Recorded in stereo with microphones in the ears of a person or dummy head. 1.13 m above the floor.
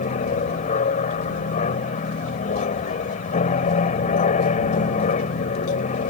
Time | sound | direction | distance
0.0 | an aircraft | 40° left (ahead or behind) | ?